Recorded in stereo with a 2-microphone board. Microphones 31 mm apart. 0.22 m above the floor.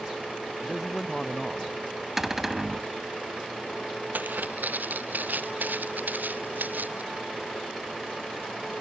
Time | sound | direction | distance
0.6 | a man speaking | 5° left (ahead or behind) | ?
2.2 | a cupboard door | 15° right (ahead or behind) | ?
4.1 | footsteps | 80° right | ?